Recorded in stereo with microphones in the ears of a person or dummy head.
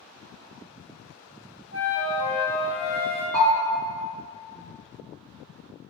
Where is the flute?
45° right (ahead or behind), 0.6 m.